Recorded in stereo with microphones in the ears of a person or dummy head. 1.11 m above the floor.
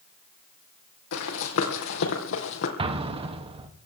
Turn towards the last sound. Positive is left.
turn(degrees=-25)  # may be behind; listen again after turning